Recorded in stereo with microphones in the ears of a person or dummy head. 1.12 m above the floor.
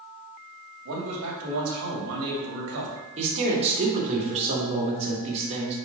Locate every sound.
0.8 s a man speaking: 75° right (ahead or behind), 2.5 m
3.2 s a man speaking: 35° right (ahead or behind), 2.5 m